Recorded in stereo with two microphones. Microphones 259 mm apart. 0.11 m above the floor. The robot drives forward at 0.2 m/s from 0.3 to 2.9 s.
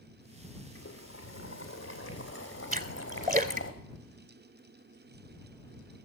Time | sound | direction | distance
0.8 | boiling | 60° left (ahead or behind) | 2 m
2.7 | a splash | 35° right (ahead or behind) | 0.8 m